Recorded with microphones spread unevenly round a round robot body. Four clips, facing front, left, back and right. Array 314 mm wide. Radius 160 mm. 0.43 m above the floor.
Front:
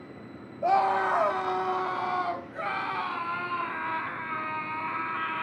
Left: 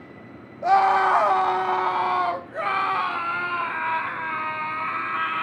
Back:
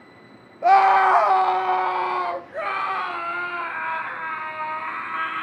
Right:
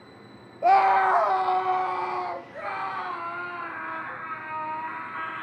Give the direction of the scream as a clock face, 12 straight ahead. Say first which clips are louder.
Left 1 dB, back 9 dB; 5 o'clock.